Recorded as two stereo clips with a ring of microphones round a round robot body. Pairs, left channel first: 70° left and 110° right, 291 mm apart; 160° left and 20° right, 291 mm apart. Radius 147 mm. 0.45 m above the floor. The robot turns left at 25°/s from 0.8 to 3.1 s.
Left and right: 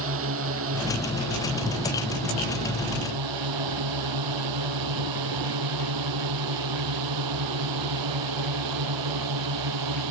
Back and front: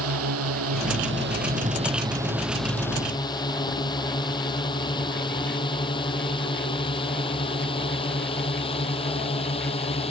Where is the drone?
65° right; by 10.1 s 130° right.